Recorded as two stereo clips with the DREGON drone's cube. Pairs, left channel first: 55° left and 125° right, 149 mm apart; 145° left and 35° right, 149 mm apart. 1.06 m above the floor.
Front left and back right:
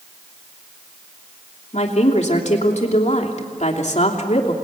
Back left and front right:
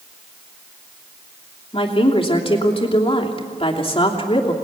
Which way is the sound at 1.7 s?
95° left.